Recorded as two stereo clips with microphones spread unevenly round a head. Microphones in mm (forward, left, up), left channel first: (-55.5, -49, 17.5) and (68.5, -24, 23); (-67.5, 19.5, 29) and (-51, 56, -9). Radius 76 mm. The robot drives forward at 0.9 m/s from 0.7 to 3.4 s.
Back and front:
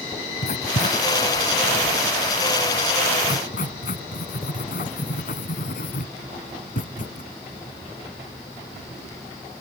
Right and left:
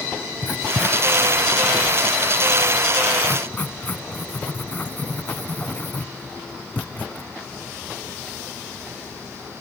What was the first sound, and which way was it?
Writing, 140° right.